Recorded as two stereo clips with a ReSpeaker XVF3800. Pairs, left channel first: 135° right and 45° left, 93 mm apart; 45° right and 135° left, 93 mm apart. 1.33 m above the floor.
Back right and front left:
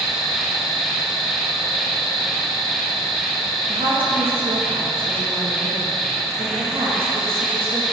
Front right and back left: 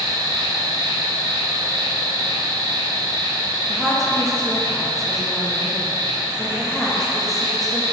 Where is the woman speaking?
40° left, 2 m.